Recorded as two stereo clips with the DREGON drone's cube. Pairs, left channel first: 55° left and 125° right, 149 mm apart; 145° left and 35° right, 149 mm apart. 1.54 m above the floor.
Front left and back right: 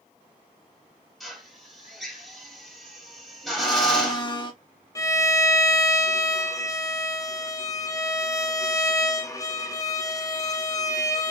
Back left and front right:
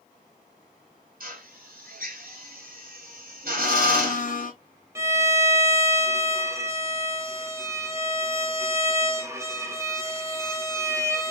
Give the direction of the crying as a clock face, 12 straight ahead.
No crying in this recording.